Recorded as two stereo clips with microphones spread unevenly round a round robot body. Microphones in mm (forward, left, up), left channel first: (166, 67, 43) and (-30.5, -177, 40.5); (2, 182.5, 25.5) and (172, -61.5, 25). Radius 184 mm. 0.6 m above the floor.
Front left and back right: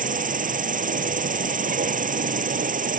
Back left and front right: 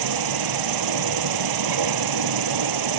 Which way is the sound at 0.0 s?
65° right.